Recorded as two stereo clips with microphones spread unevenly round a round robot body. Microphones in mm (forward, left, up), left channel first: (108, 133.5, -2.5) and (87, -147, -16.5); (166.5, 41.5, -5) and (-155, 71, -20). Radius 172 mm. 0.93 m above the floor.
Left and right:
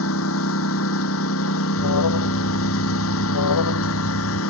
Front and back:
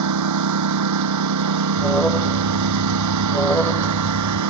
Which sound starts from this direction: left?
An alarm, at 1.8 s.